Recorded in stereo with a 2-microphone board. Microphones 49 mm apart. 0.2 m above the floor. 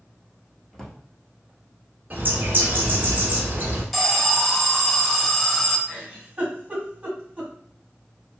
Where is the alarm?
5° left (ahead or behind), 0.6 m.